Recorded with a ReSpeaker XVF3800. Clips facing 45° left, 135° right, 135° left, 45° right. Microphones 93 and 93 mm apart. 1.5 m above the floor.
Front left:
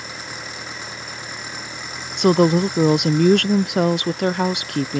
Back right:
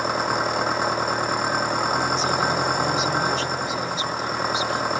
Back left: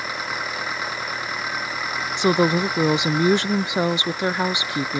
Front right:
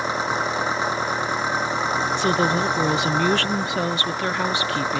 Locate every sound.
0.0 s an engine running: 105° right
2.2 s a woman speaking: 65° left